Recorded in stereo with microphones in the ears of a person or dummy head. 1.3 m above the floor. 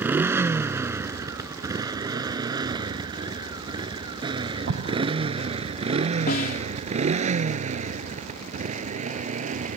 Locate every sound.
0.0 s a motorcycle: 5° right (ahead or behind); by 9.8 s 35° right (ahead or behind)
4.7 s an explosion: 75° right (ahead or behind)
6.3 s a snare drum: 55° left (ahead or behind)